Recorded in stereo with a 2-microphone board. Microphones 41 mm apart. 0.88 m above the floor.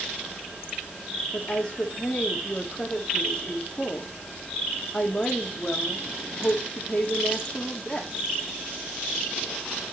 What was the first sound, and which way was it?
A woman speaking, 20° left (ahead or behind).